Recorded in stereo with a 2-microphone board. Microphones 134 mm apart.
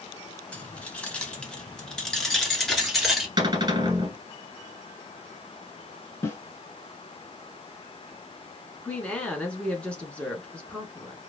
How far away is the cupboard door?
About 1.7 m.